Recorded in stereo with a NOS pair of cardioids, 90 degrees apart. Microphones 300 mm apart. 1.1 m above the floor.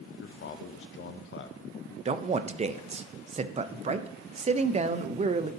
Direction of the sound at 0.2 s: 45° left.